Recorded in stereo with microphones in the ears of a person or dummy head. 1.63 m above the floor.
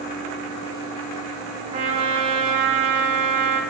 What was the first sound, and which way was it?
A trumpet, 35° right (ahead or behind).